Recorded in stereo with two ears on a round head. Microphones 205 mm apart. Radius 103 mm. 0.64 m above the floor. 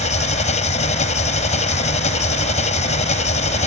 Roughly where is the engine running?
Left.